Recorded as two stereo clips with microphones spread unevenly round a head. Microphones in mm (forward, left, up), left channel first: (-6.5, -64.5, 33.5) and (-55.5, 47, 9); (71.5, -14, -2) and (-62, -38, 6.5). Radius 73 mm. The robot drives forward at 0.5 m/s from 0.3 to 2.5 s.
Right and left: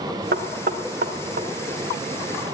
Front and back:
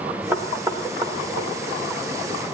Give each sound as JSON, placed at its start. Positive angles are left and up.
{"t": 0.3, "sound": "knocking", "azimuth_deg": 115, "distance_m": 1.0}